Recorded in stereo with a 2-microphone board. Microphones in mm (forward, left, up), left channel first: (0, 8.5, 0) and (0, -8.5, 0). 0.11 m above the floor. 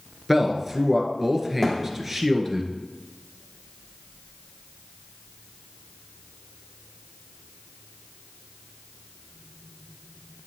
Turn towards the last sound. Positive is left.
turn(degrees=35)  # may be behind; listen again after turning